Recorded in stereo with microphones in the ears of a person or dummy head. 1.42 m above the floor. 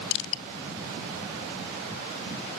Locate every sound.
0.1 s crushing: 65° left (ahead or behind), 0.7 m